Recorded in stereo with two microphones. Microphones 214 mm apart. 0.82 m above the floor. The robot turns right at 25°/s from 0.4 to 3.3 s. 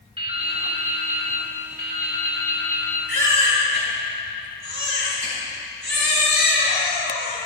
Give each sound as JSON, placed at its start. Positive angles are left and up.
{"t": 0.2, "sound": "dripping", "azimuth_deg": -155, "distance_m": 1.8}
{"t": 3.1, "sound": "a baby crying", "side_deg": -85, "distance_m": 4.5}